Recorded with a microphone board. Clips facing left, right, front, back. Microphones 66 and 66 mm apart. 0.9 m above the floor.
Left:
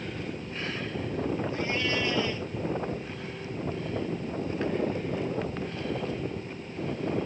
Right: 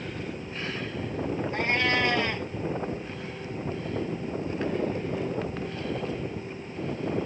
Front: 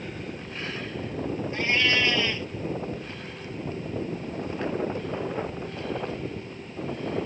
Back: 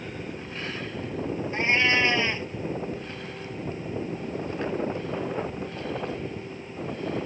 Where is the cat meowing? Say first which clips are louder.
Right 4 dB, back 2 dB; 120° right.